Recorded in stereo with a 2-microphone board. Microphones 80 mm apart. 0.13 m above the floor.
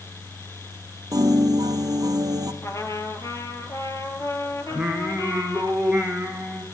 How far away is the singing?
About 4.5 m.